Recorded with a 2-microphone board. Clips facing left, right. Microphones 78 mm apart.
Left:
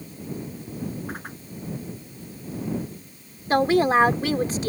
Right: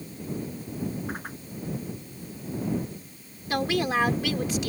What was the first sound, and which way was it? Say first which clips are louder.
A whoosh: even; centre (ahead or behind).